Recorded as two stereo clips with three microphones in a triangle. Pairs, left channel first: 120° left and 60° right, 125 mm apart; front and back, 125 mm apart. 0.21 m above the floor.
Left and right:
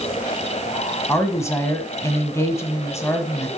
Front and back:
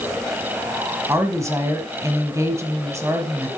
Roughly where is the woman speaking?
Behind left.